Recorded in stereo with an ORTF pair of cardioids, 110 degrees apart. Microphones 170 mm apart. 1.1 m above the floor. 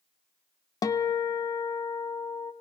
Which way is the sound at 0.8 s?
20° left.